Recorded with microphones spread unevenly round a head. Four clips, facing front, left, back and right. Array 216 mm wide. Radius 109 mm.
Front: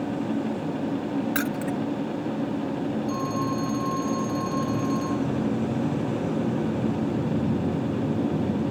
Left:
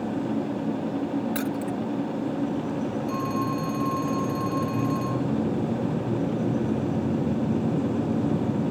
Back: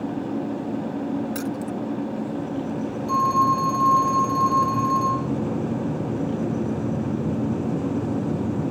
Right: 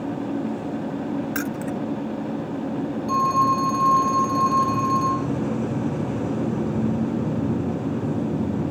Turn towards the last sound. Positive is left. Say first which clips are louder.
# right 12 dB, back 7 dB
turn(degrees=-130)